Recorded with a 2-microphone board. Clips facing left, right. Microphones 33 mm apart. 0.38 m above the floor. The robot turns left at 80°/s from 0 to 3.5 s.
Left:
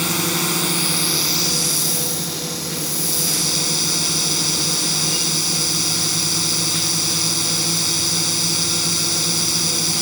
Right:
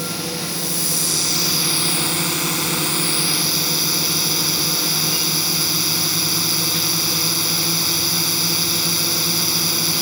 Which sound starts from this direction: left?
A drone, at 0.0 s.